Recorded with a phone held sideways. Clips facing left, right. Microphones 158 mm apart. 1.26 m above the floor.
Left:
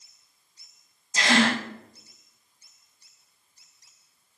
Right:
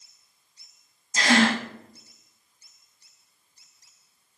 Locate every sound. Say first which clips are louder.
1.1 s a gasp: right 2 dB; 25° left (ahead or behind), 4.5 m